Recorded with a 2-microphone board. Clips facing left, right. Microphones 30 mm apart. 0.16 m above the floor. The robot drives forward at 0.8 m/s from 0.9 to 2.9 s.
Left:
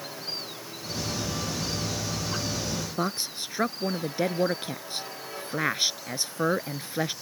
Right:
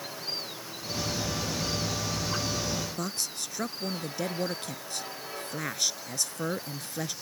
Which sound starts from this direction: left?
A woman speaking, at 3.0 s.